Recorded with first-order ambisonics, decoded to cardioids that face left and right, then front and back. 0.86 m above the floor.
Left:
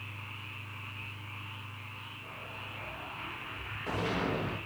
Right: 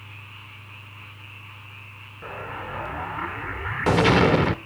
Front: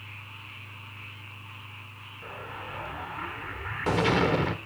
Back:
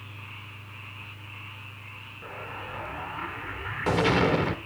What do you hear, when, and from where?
2.2 s an explosion: 95° right, 0.9 m